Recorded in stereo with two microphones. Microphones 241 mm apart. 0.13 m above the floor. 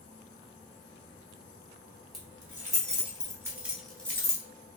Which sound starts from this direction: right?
Keys jangling, at 2.1 s.